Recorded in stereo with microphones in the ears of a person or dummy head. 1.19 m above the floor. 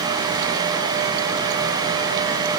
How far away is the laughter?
No laughter in this recording.